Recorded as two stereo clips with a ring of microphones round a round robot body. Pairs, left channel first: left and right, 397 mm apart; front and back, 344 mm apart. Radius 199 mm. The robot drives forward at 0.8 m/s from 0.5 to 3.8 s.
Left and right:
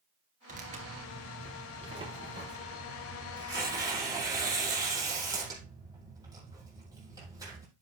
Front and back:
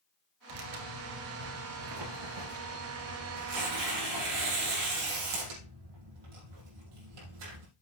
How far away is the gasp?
I don't hear a gasp.